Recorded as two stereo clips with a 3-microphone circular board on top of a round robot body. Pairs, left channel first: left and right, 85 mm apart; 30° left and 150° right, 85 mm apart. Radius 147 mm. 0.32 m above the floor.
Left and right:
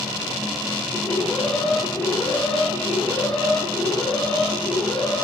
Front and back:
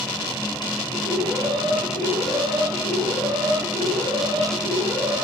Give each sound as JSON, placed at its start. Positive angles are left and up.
{"t": 0.9, "sound": "an alarm", "azimuth_deg": 170, "distance_m": 9.0}